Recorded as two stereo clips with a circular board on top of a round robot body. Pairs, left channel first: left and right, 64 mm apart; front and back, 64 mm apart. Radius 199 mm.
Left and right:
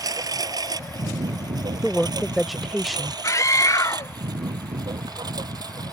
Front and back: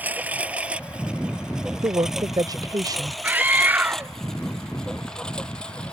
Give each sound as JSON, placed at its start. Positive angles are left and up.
{"t": 0.0, "sound": "a lawn mower", "azimuth_deg": -115}
{"t": 1.8, "sound": "a woman speaking", "azimuth_deg": 180}
{"t": 3.2, "sound": "a scream", "azimuth_deg": 120}